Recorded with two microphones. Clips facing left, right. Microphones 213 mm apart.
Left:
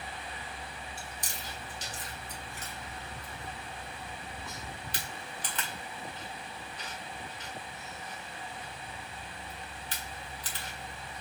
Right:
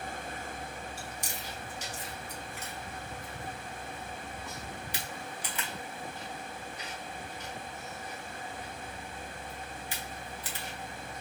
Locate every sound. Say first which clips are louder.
1.0 s chewing: right 3 dB; 10° right (ahead or behind), 1.5 m